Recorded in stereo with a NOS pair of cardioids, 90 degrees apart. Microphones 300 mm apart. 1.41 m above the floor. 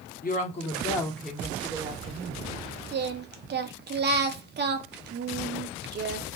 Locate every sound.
0.2 s a woman speaking: 30° left, 1.3 m; by 2.6 s 25° right, 1.7 m
2.9 s singing: 35° right, 0.6 m